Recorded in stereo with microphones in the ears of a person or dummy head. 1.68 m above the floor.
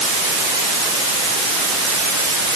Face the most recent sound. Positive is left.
No sound to turn to.